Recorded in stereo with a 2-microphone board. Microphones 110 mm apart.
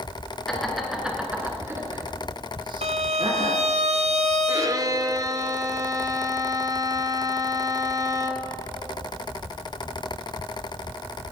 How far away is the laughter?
About 2.5 m.